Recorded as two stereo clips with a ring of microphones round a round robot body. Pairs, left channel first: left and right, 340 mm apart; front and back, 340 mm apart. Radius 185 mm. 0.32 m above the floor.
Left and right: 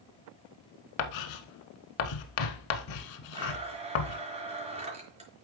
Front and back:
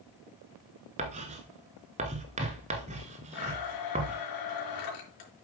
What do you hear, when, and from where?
1.0 s writing: 105° left, 0.9 m
3.3 s a blender: 15° right, 4 m